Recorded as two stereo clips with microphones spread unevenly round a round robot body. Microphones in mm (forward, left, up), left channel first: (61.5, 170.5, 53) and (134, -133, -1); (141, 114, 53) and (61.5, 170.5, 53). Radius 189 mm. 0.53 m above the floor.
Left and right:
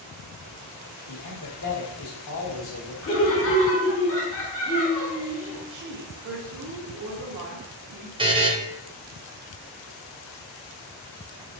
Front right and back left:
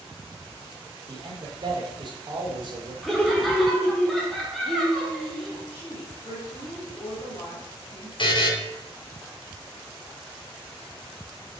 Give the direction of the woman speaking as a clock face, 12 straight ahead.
4 o'clock.